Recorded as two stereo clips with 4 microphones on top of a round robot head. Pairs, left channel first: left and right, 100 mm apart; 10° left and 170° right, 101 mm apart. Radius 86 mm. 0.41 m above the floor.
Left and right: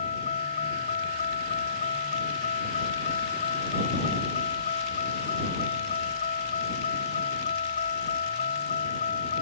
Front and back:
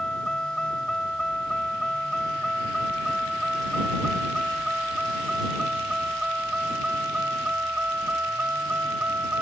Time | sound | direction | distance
0.0 | a vehicle | 95° left | ?